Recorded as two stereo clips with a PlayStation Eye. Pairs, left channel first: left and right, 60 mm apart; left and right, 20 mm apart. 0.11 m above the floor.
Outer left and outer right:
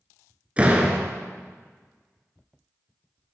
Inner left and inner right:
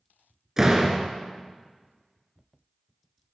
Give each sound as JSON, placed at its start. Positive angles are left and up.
{"t": 0.6, "sound": "a door slam", "side_deg": -20, "distance_m": 1.3}